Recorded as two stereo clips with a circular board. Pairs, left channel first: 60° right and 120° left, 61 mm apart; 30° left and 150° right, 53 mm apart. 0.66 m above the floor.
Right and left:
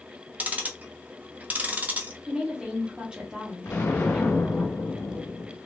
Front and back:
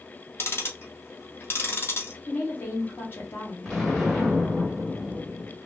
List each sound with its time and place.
0.4 s ticking: 60° left, 0.6 m
2.3 s a woman speaking: 50° left, 1.2 m
3.6 s an explosion: 60° right, 1.4 m